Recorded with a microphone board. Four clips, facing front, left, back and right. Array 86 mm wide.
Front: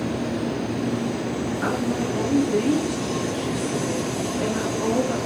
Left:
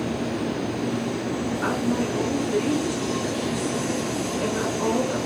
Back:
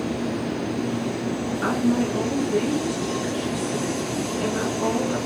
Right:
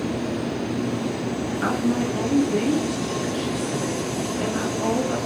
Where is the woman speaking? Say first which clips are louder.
Right 3 dB, back 4 dB; 85° right, 1.2 m.